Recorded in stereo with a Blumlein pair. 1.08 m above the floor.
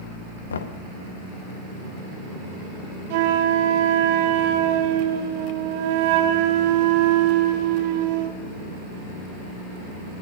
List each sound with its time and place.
0.5 s knocking: 70° left, 1.3 m
3.1 s a flute: 50° right, 1.7 m